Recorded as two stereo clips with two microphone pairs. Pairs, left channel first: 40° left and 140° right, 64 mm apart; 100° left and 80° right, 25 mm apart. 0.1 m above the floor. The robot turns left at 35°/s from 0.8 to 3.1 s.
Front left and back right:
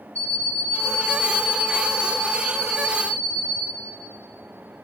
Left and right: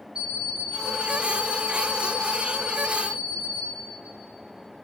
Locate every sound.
0.1 s an alarm clock: 25° right, 3 m; by 3.6 s 105° right, 3 m